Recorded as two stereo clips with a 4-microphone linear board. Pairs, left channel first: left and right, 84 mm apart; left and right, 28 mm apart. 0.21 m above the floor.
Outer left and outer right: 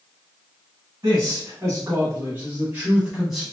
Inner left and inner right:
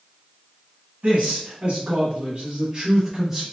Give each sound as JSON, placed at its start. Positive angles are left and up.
{"t": 1.0, "sound": "a man speaking", "side_deg": -45, "distance_m": 1.5}